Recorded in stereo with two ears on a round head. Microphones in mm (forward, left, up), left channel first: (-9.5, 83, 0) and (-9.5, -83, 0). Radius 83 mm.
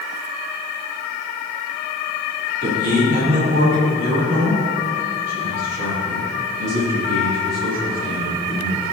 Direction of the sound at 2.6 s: 45° right (ahead or behind).